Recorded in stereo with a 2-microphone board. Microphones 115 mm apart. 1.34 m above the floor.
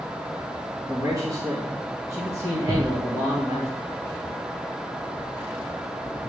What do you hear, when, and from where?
0.9 s a man speaking: 25° right (ahead or behind), 2.5 m
2.7 s a thud: 65° right (ahead or behind), 3 m